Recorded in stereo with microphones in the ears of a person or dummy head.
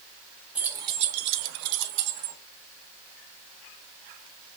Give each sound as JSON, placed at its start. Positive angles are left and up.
{"t": 0.6, "sound": "keys jangling", "side_deg": -10, "distance_m": 0.8}